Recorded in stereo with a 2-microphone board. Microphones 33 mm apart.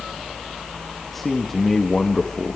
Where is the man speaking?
5° left (ahead or behind), 1.6 m; by 2.6 s 25° left (ahead or behind), 1.2 m.